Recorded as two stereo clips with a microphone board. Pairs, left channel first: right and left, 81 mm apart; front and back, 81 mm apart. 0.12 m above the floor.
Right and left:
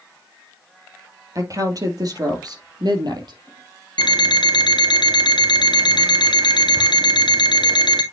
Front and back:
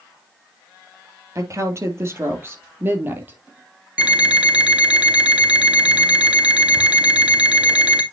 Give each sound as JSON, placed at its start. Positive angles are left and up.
{"t": 1.4, "sound": "a woman speaking", "azimuth_deg": 130, "distance_m": 3.0}
{"t": 4.0, "sound": "an alarm clock", "azimuth_deg": -105, "distance_m": 1.9}